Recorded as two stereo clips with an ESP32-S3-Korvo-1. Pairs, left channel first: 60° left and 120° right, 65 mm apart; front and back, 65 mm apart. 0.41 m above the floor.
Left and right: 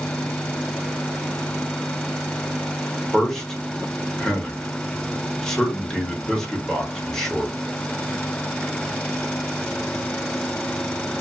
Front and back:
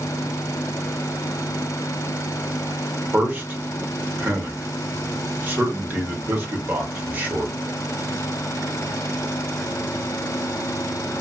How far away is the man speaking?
About 1.1 m.